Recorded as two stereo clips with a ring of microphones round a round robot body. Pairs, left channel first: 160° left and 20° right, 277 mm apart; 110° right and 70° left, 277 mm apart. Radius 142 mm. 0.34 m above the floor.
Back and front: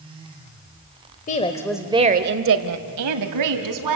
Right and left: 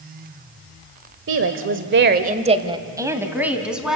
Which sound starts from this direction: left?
A woman speaking, at 1.3 s.